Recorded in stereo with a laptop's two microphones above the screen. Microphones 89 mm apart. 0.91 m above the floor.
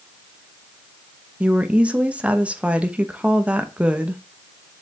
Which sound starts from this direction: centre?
A woman speaking, at 1.4 s.